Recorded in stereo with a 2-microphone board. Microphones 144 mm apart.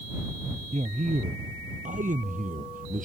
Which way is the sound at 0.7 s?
55° right (ahead or behind).